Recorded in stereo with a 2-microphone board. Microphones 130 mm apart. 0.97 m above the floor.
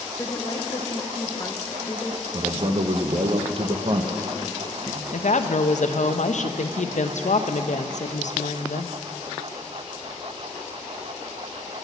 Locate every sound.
0.2 s a woman speaking: 25° left (ahead or behind), 0.8 m
2.3 s a man speaking: 45° right (ahead or behind), 0.6 m
5.1 s a woman speaking: 65° left (ahead or behind), 0.5 m